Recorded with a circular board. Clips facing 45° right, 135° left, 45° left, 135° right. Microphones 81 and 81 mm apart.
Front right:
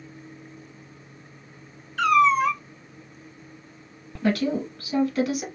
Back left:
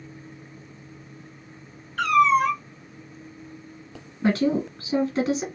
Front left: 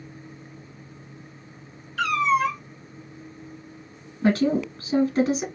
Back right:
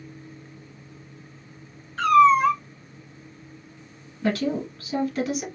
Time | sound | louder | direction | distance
2.0 | a cat meowing | even, back right 6 dB | 175° left | 1.6 m
4.2 | a woman speaking | back left 2 dB, front left 4 dB | 90° left | 1.7 m